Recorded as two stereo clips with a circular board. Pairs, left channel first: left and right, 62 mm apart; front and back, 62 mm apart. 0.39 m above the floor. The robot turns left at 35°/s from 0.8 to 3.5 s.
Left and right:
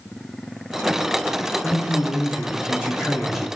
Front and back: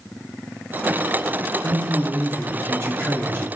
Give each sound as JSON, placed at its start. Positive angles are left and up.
{"t": 1.6, "sound": "a man speaking", "azimuth_deg": -120, "distance_m": 1.1}